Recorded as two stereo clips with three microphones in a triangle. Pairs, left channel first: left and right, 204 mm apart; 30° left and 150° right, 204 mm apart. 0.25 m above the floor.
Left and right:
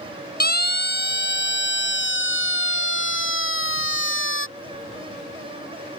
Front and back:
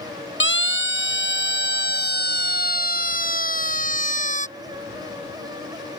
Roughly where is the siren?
Ahead left.